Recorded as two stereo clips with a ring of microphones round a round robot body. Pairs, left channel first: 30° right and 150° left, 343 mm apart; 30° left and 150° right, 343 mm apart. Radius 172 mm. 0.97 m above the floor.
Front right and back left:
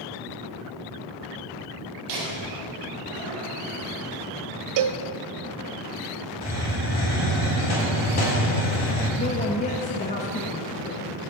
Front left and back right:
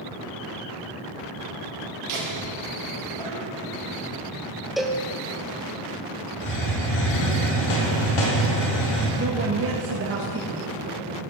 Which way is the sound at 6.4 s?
35° left.